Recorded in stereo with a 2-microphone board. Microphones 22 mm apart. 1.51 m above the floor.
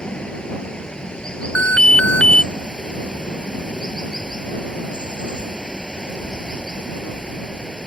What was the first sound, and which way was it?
Running water, 50° left (ahead or behind).